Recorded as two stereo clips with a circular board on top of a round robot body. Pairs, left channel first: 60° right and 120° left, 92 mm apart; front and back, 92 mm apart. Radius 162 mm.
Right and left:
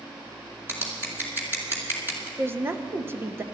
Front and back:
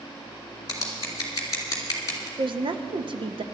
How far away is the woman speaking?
About 1.2 m.